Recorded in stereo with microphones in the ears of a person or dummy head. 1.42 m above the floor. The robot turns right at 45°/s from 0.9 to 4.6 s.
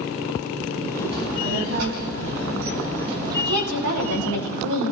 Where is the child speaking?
150° right, 6.5 m; by 4.3 s straight ahead, 6.5 m.